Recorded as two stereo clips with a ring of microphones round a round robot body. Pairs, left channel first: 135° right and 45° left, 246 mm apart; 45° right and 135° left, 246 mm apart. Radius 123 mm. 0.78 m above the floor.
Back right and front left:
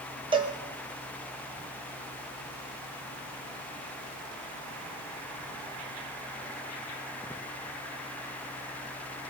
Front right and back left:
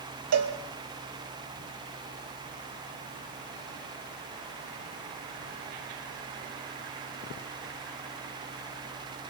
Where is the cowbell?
115° left, 1.9 m.